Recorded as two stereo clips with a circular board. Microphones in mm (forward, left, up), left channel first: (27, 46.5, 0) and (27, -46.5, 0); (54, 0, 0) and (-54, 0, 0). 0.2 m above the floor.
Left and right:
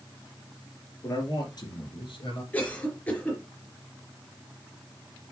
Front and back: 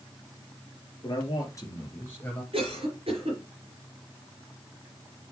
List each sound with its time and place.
1.0 s a man speaking: 40° left, 3 m; by 2.4 s 75° left, 3.5 m
2.5 s a cough: 165° left, 4 m